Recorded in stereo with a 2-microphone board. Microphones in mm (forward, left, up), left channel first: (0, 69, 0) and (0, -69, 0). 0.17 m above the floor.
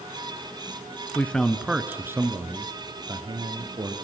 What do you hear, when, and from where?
1.1 s a man speaking: 15° left (ahead or behind), 1.5 m; by 4.0 s 35° right (ahead or behind), 4.5 m